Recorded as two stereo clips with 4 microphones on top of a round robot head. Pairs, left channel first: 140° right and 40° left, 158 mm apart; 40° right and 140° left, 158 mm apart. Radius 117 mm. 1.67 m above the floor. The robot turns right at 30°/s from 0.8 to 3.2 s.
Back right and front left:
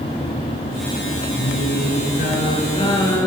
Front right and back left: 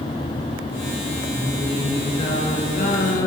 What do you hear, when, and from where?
1.4 s singing: 125° right, 5 m; by 3.3 s 70° right, 5 m